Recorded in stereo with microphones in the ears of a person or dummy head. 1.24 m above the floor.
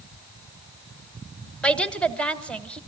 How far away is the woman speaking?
About 1.3 m.